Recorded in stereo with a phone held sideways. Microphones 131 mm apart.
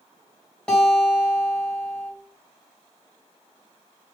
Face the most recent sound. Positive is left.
turn(degrees=5)  # may be behind; listen again after turning